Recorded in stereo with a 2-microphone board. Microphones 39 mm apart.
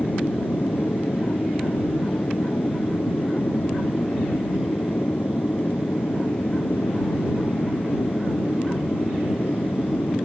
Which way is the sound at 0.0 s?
60° left (ahead or behind).